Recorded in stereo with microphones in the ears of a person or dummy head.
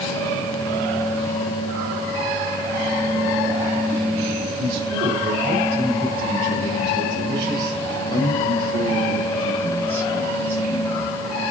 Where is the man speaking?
40° right (ahead or behind), 8 m; by 11.2 s 10° right (ahead or behind), 10.5 m.